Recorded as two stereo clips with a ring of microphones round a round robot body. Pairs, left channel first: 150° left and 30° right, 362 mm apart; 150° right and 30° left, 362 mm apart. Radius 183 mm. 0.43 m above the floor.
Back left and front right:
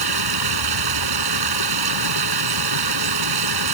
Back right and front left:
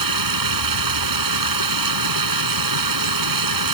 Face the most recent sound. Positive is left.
turn(degrees=-5)